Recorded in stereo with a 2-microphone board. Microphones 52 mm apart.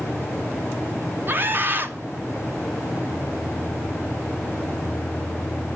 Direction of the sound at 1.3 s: 40° right (ahead or behind).